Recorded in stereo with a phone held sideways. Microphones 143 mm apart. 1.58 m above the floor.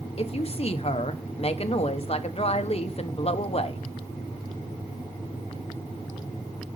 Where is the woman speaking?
45° left (ahead or behind), 1.0 m.